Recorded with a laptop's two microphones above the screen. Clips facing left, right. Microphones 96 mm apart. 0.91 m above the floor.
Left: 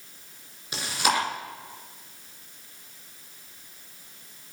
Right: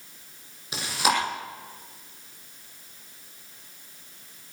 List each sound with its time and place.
0.7 s chewing: 10° right (ahead or behind), 4.5 m